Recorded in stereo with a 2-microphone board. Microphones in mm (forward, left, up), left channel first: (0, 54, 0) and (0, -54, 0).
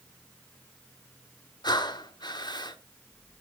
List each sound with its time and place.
1.6 s breathing: 40° left (ahead or behind), 1.1 m